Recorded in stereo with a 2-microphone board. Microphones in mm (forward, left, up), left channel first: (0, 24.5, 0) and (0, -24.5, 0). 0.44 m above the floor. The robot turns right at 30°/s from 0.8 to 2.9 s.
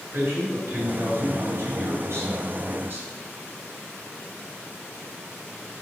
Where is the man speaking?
115° right, 3 m; by 3.1 s 55° right, 3 m.